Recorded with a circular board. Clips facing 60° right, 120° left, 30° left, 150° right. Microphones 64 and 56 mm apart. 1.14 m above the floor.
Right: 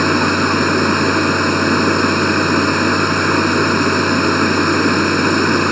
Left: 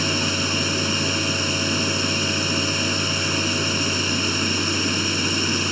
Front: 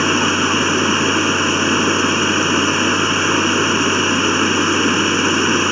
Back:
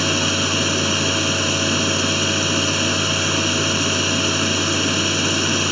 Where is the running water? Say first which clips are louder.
Right 10 dB, front 5 dB; 30° right.